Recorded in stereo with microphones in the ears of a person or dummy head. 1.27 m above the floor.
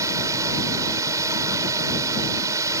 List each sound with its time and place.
0.0 s a drone: 15° right (ahead or behind)